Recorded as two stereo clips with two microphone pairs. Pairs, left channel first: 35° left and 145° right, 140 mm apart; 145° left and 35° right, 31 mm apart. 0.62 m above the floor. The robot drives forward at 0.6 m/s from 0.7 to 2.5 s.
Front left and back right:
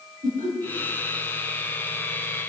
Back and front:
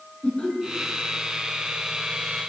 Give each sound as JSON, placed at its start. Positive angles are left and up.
{"t": 0.2, "sound": "laughter", "azimuth_deg": -160, "distance_m": 6.5}